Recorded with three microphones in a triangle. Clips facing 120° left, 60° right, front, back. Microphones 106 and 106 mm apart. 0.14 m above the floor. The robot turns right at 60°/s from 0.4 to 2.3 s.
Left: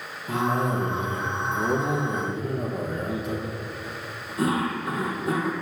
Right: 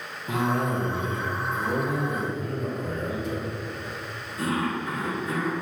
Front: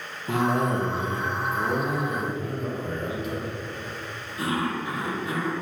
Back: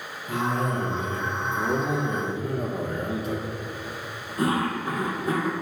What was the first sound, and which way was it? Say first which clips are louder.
A cough: left 1 dB, front 3 dB; 15° left.